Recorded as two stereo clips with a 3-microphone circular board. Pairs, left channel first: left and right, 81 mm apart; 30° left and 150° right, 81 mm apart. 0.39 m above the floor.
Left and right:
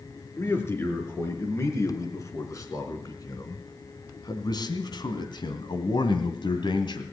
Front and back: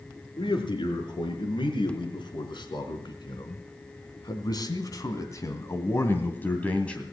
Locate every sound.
0.4 s a man speaking: 30° left, 5 m; by 7.0 s 105° left, 2.5 m